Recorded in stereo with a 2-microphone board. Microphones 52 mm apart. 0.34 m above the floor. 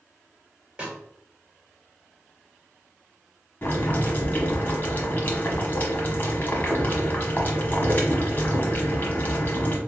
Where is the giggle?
I don't hear a giggle.